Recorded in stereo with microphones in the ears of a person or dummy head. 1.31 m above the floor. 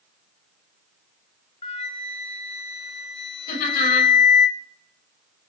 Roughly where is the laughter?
Left.